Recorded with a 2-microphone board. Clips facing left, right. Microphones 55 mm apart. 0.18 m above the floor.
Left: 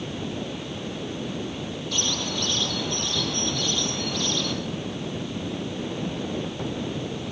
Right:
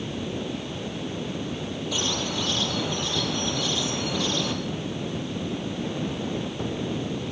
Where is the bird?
10° right (ahead or behind), 3 m.